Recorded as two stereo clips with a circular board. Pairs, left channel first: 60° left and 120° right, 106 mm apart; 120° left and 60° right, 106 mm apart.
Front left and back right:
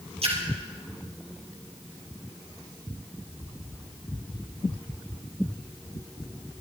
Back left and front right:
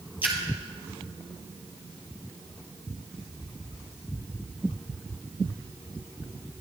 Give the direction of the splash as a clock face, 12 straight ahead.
4 o'clock.